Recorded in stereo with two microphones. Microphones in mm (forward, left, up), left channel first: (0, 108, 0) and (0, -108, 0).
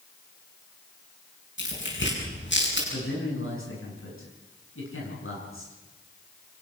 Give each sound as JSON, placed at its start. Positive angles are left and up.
{"t": 1.6, "sound": "tearing paper", "side_deg": 60, "distance_m": 9.0}
{"t": 2.9, "sound": "a man speaking", "side_deg": 70, "distance_m": 7.5}